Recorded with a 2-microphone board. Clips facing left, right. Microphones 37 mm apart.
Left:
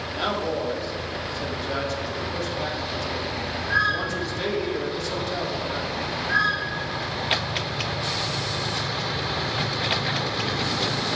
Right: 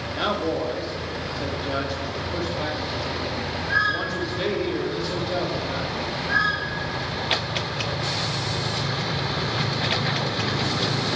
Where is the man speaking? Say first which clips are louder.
Right 2 dB; 15° right (ahead or behind), 2.5 m.